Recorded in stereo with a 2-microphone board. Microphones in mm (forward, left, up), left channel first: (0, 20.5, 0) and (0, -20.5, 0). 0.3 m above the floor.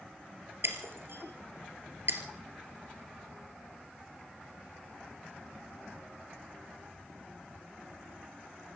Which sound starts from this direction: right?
Breaking glass, at 0.6 s.